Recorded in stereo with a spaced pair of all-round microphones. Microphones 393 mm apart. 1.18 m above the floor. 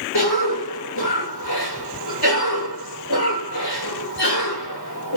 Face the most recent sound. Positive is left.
turn(degrees=65)  # may be behind; listen again after turning